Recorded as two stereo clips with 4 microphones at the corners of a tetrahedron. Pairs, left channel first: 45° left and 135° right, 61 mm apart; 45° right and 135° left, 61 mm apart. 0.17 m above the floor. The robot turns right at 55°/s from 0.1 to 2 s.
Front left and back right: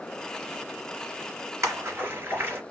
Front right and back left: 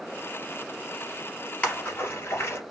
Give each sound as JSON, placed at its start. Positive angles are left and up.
{"t": 1.6, "sound": "a splash", "azimuth_deg": -105, "distance_m": 3.5}